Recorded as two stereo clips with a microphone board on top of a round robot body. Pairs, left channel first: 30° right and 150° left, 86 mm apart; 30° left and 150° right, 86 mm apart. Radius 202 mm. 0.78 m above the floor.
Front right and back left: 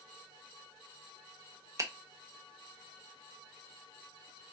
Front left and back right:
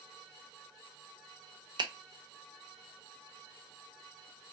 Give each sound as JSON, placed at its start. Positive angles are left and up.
{"t": 1.8, "sound": "a finger snap", "azimuth_deg": -165, "distance_m": 0.7}